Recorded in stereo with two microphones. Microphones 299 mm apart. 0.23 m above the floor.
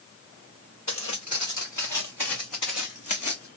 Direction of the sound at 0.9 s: 65° left (ahead or behind).